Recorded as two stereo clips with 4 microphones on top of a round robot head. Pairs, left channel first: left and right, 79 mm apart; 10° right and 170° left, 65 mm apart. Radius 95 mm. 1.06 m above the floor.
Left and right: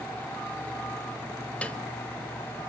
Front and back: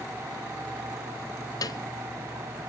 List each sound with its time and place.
1.6 s a piano: 15° left, 0.9 m